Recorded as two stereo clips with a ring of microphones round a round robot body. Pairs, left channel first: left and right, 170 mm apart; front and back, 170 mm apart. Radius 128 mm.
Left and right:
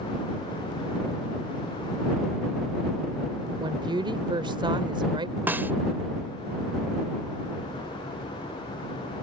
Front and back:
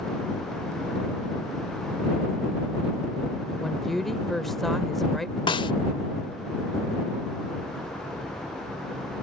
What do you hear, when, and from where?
3.6 s a woman speaking: 85° right
5.5 s a snare drum: 20° right